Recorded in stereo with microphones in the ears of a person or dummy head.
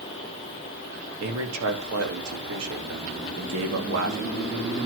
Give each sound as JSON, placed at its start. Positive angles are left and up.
{"t": 1.2, "sound": "a man speaking", "side_deg": -80, "distance_m": 3.5}